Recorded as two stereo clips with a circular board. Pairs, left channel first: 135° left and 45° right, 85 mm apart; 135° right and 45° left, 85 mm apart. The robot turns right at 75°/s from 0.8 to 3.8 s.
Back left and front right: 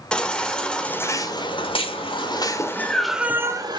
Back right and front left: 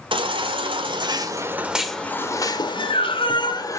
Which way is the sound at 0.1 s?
55° left.